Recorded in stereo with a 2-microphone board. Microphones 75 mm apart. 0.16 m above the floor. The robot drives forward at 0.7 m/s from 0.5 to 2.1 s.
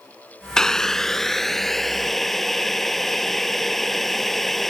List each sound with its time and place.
0.6 s boiling: 10° left (ahead or behind); by 4.7 s 5° left (ahead or behind)